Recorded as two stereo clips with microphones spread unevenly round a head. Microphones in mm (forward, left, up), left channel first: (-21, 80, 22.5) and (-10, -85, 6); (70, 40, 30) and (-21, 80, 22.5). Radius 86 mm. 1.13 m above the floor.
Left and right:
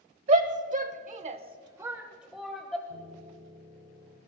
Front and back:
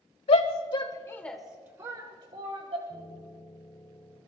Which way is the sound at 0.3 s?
45° right.